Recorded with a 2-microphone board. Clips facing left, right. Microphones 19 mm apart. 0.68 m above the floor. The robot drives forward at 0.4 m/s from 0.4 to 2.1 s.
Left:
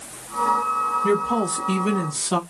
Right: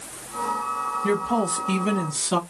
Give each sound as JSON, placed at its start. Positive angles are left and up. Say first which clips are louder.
{"t": 1.0, "sound": "a woman speaking", "louder": "left 2 dB", "side_deg": 5, "distance_m": 1.0}